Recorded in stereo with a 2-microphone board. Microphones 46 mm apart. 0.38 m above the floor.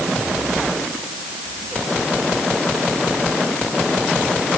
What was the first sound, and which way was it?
Only background noise.